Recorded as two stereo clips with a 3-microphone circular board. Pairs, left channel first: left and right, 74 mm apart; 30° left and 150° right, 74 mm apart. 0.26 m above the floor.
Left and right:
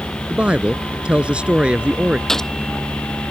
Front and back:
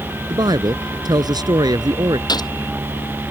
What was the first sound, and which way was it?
A woman speaking, 165° right.